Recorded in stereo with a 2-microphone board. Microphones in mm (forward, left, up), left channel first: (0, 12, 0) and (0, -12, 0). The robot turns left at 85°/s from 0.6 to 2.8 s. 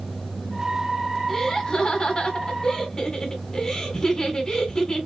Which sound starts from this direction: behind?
Laughter, at 1.3 s.